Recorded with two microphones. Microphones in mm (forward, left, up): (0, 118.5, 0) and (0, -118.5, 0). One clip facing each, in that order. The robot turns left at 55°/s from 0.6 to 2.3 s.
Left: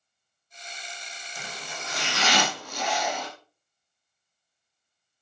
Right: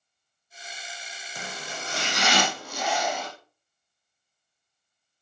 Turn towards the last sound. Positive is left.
turn(degrees=-170)